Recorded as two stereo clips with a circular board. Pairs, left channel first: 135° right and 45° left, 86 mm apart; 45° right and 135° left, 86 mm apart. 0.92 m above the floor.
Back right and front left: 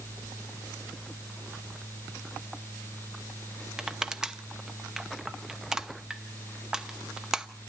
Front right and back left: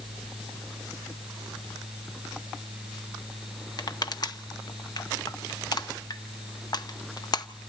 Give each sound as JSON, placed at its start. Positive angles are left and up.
{"t": 3.8, "sound": "crushing", "azimuth_deg": -35, "distance_m": 0.8}